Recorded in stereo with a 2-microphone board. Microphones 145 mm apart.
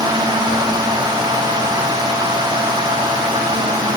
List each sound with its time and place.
Only background noise.